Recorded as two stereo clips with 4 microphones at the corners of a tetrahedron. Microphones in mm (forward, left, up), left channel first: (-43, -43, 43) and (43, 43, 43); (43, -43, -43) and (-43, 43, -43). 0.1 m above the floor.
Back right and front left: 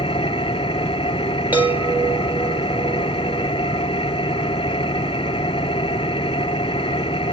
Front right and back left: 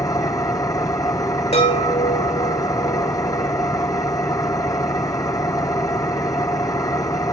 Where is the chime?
30° right, 5 m.